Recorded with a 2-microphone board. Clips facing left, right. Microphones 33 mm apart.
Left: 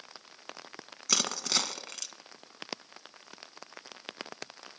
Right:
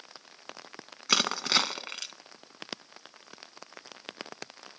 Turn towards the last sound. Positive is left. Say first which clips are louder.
# right 5 dB
turn(degrees=-35)  # may be behind; listen again after turning